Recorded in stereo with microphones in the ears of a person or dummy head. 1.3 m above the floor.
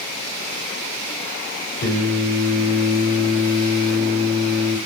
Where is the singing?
60° left (ahead or behind), 4 m.